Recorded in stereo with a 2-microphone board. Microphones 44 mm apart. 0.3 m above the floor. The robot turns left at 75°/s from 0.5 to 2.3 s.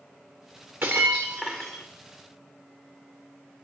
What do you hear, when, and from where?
0.8 s breaking glass: 110° right, 1.9 m; by 1.9 s 175° left, 1.9 m